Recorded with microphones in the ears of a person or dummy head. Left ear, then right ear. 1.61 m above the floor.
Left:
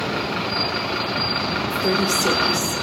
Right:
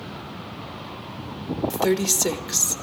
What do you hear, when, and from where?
1.7 s a woman speaking: 35° right (ahead or behind), 1.9 m